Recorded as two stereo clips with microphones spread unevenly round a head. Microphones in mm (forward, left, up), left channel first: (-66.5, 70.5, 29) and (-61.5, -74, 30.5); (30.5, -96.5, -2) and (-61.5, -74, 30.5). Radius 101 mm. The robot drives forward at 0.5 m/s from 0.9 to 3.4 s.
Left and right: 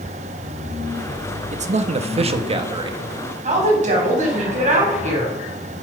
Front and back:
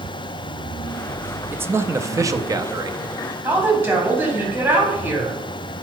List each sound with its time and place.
1.5 s a man speaking: 115° right, 1.3 m; by 3.0 s 140° right, 1.8 m
3.4 s a woman speaking: 125° right, 7 m